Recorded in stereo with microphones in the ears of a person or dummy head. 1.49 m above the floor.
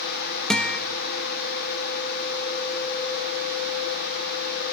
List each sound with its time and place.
0.5 s a guitar: 5° left (ahead or behind), 1.3 m